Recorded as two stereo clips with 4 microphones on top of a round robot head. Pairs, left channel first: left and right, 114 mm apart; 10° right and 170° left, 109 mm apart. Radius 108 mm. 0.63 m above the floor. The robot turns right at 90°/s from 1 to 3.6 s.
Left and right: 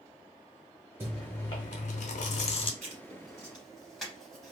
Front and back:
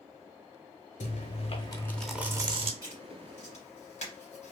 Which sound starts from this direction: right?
Writing, at 2.8 s.